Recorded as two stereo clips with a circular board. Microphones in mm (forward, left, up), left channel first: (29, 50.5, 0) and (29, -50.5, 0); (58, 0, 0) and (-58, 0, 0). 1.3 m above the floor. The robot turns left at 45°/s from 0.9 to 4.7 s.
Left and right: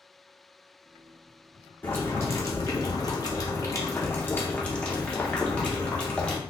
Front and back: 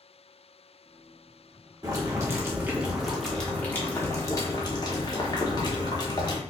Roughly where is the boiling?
Behind left.